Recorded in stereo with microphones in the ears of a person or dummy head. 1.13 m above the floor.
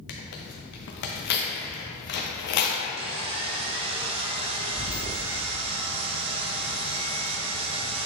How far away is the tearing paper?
About 0.8 m.